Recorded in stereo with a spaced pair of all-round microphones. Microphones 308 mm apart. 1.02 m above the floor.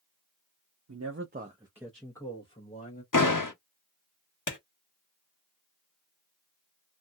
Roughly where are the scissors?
I don't hear scissors.